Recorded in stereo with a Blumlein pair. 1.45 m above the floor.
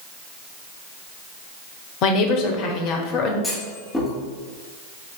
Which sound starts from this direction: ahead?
A clunk, at 3.4 s.